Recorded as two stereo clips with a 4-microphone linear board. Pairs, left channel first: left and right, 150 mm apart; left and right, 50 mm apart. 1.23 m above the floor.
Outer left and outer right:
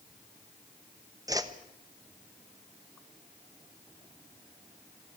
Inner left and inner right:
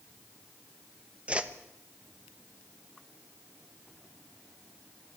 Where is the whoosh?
25° right (ahead or behind), 1.1 m.